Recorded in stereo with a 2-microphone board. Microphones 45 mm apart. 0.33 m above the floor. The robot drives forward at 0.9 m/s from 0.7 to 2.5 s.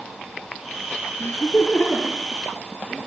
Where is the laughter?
45° left (ahead or behind), 8 m; by 3.1 s 40° left (ahead or behind), 9 m.